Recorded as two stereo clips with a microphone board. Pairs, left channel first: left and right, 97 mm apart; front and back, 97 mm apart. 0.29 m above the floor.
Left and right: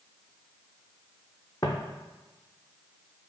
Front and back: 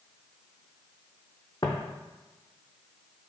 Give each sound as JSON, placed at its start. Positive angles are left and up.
{"t": 1.6, "sound": "footsteps", "azimuth_deg": 45, "distance_m": 0.6}